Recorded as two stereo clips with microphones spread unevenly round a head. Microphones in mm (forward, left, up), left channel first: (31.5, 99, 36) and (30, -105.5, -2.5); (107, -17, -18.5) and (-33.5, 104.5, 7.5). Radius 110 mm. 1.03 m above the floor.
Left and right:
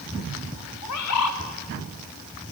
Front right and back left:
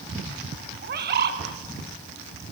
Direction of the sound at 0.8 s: 100° left.